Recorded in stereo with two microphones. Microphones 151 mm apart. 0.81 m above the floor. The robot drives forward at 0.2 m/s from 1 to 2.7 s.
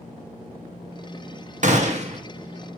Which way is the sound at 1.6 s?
55° right (ahead or behind).